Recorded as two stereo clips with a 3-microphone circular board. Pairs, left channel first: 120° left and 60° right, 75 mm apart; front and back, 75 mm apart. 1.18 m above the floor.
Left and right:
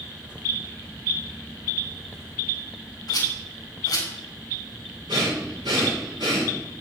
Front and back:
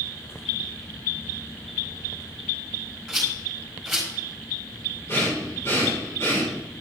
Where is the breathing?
55° right, 3.5 m.